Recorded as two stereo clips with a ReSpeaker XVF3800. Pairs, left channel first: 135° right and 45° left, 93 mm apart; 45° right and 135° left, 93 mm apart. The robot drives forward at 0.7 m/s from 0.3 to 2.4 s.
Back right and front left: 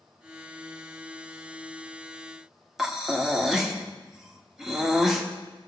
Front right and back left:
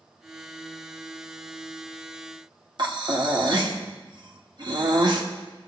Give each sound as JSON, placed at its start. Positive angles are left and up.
{"t": 2.8, "sound": "breathing", "azimuth_deg": 130, "distance_m": 1.2}